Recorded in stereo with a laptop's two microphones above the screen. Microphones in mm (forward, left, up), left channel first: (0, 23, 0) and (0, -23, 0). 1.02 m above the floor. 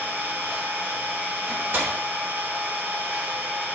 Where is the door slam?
60° right (ahead or behind), 1.1 m.